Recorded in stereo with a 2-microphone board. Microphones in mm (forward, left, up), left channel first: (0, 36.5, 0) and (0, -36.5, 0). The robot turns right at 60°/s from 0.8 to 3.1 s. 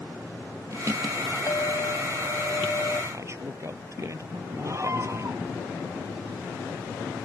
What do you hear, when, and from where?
1.5 s a clink: 60° left; by 3.0 s 155° left
3.1 s a man speaking: 40° right (ahead or behind)
4.6 s a scream: 40° right (ahead or behind)